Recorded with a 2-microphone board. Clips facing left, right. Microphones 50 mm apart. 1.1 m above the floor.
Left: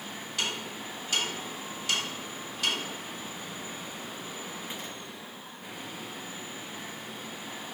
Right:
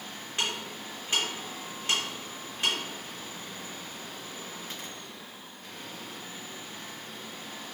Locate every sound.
0.4 s ticking: 30° right (ahead or behind), 3 m